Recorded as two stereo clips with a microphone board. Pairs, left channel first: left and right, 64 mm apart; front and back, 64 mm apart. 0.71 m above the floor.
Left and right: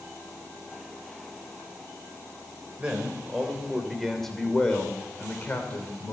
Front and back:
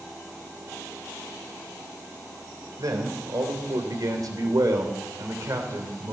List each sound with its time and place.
2.8 s a man speaking: 160° right, 3 m; by 6.1 s 140° left, 2.5 m